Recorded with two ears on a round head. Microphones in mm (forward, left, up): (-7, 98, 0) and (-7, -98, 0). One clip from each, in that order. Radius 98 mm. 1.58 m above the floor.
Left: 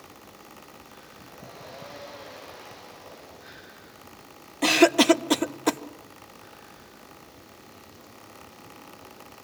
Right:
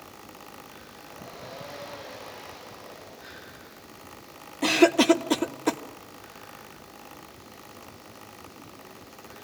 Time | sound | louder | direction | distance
4.6 | a cough | left 1 dB | 20° left (ahead or behind) | 0.5 m